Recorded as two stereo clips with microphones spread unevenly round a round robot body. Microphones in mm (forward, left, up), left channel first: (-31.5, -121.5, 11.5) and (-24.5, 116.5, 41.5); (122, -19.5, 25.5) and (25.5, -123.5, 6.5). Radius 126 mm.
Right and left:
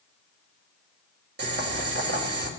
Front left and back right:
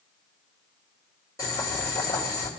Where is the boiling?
120° left, 1.7 m.